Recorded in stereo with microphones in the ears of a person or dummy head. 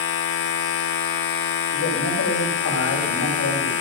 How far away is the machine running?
About 1.3 m.